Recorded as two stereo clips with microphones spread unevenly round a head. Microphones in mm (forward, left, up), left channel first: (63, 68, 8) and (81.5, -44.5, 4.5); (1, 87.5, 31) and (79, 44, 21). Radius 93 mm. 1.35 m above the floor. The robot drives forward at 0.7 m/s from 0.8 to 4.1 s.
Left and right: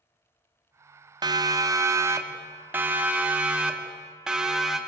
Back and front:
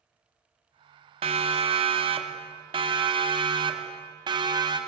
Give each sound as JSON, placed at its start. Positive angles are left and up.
{"t": 1.2, "sound": "a siren", "azimuth_deg": -25, "distance_m": 2.5}